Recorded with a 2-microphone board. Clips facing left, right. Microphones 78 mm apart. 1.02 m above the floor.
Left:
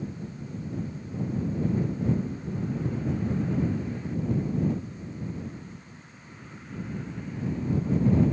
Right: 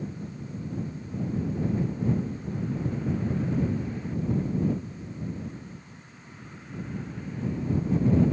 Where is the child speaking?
I don't hear a child speaking.